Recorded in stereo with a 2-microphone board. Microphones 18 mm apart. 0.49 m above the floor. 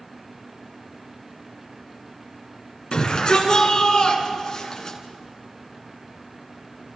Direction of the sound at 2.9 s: 40° left (ahead or behind).